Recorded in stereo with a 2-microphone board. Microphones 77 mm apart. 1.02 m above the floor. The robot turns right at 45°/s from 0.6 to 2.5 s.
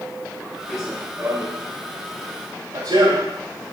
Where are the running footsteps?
Centre (ahead or behind), 5 m; by 3.4 s 75° right (ahead or behind), 5 m.